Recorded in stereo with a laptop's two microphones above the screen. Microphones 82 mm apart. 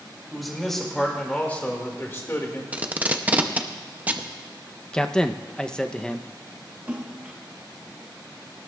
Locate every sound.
0.3 s a man speaking: centre (ahead or behind), 2 m; by 2.6 s 45° left (ahead or behind), 1.9 m
2.7 s tape being pulled: 20° right (ahead or behind), 0.6 m
4.9 s a man speaking: 10° left (ahead or behind), 0.7 m
6.9 s a splash: 20° right (ahead or behind), 1.2 m